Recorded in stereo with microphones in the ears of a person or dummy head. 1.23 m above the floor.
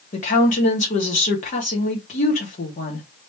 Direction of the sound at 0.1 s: 35° left (ahead or behind).